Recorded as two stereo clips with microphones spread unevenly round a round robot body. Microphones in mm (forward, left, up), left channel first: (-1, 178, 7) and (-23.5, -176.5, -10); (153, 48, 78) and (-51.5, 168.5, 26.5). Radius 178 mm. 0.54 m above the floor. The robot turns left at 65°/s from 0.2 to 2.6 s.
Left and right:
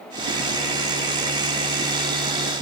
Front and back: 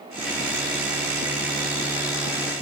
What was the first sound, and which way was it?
Only background noise.